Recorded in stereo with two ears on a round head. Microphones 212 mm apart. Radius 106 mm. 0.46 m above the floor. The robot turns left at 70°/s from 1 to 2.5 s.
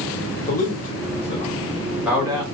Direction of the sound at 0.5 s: 30° left (ahead or behind).